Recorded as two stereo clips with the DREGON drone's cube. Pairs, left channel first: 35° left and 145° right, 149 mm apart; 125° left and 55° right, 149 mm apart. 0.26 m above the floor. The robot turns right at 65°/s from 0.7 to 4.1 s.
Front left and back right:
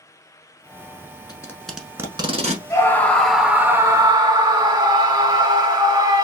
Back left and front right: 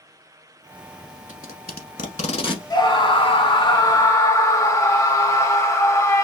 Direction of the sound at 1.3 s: 95° left.